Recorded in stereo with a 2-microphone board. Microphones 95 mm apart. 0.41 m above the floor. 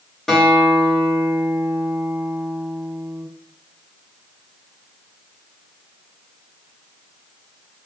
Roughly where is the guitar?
Centre.